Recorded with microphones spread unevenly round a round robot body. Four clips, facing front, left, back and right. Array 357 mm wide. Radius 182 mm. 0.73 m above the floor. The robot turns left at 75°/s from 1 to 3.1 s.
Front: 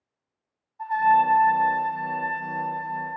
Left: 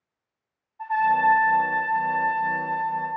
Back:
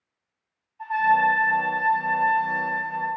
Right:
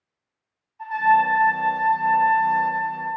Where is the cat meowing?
I don't hear a cat meowing.